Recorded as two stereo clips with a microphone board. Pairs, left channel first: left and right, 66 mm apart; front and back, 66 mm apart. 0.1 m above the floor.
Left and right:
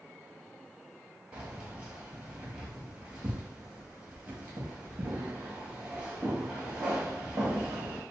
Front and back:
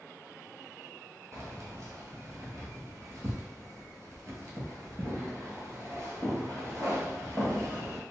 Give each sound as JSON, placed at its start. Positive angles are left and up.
{"t": 1.3, "sound": "keys jangling", "azimuth_deg": -160, "distance_m": 1.3}